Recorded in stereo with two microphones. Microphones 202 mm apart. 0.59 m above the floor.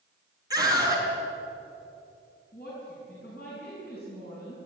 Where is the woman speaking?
45° left (ahead or behind), 7 m.